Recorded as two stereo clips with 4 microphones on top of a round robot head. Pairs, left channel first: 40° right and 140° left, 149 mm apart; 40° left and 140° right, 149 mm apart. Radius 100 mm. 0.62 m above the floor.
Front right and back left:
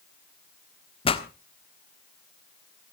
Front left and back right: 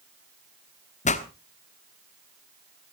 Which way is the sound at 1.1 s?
10° left.